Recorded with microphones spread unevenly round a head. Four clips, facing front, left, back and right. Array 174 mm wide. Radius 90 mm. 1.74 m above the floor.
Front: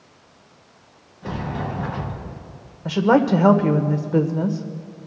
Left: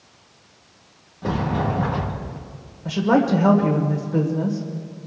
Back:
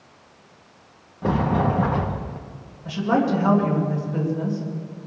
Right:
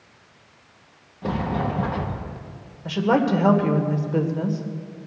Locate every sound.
1.2 s a sliding door: straight behind, 1.0 m
2.9 s a woman speaking: 5° right, 1.7 m